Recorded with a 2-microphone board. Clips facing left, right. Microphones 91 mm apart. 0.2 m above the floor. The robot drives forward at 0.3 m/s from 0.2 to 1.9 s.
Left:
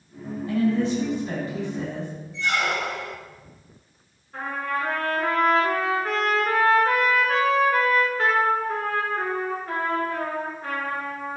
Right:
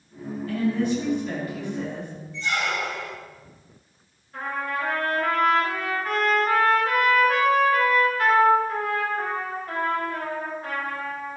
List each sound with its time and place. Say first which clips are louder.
0.5 s a woman speaking: left 2 dB; 25° left (ahead or behind), 1.2 m
2.3 s a squeak: left 2 dB; 60° left (ahead or behind), 0.6 m
4.3 s a trumpet: left 1 dB; 35° left (ahead or behind), 1.2 m